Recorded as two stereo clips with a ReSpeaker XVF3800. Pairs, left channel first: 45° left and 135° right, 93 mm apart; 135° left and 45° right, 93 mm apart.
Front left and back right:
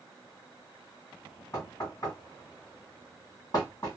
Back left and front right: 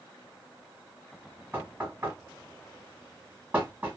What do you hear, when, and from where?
1.5 s knocking: 10° left, 1.9 m